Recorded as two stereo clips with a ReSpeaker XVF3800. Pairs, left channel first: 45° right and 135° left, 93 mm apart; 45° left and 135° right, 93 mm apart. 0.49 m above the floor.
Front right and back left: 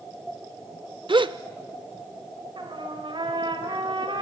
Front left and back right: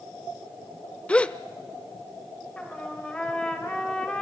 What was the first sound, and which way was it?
A gasp, 120° left.